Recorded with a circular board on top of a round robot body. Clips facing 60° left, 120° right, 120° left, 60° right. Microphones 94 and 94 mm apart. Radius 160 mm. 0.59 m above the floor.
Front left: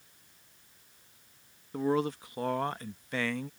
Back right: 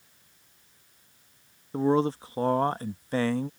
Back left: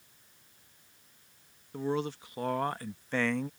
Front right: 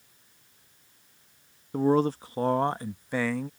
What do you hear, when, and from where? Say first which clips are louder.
1.7 s a man speaking: back right 5 dB, front right 9 dB; 70° right; by 3.5 s 150° right